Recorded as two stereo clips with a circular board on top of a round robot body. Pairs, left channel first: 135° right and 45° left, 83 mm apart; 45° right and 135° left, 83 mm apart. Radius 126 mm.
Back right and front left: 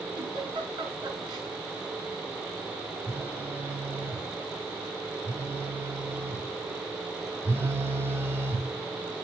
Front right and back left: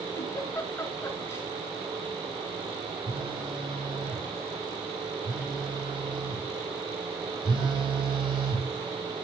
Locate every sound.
0.1 s a giggle: 15° left, 6 m
3.1 s a phone buzzing: 110° left, 3 m